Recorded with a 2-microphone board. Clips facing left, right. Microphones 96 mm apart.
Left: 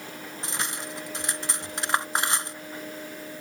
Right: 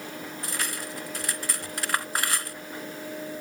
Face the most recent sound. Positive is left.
turn(degrees=25)  # may be behind; listen again after turning